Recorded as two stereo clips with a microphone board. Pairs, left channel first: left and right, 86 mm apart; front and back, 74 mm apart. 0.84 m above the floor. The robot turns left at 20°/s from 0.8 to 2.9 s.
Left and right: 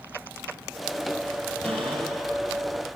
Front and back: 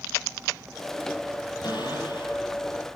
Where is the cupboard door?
15° left, 6 m; by 2.4 s straight ahead, 6 m.